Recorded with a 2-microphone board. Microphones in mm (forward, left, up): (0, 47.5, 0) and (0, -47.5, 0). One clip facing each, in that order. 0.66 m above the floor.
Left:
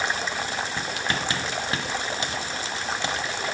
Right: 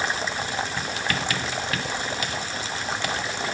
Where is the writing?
30° left (ahead or behind), 0.7 m.